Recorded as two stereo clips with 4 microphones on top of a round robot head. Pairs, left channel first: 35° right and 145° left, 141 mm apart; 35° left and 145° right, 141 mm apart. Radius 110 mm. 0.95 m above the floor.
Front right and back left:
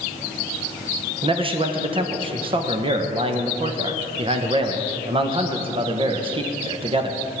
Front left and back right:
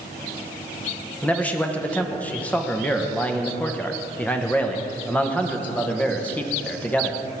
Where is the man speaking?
110° left, 1.2 m.